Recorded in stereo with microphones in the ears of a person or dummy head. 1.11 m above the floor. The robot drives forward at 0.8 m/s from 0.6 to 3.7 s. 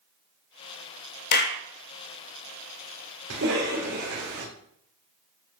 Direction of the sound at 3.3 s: 70° right (ahead or behind).